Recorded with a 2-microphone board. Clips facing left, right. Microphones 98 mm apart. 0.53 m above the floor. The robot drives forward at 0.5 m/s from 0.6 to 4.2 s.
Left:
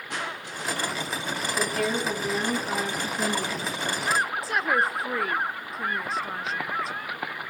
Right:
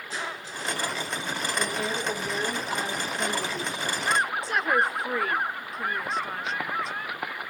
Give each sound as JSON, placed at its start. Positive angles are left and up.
{"t": 0.1, "sound": "crushing", "side_deg": 65, "distance_m": 5.5}
{"t": 1.6, "sound": "a woman speaking", "side_deg": 80, "distance_m": 6.0}
{"t": 4.4, "sound": "a woman speaking", "side_deg": 0, "distance_m": 0.8}